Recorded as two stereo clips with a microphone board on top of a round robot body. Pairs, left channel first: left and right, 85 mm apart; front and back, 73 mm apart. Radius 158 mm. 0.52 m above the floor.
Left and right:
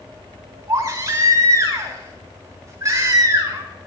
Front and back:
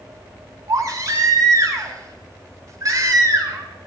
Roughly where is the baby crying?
Behind right.